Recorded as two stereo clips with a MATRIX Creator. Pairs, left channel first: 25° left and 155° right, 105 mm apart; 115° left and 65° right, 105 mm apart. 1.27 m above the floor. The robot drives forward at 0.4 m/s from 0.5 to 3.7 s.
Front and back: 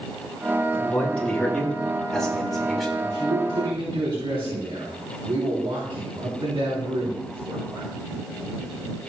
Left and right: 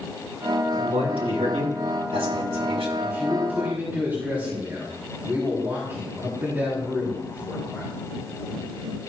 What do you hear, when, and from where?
0.7 s a man speaking: 55° right, 4.5 m; by 2.9 s 65° right, 4 m
3.0 s a man speaking: 135° right, 3 m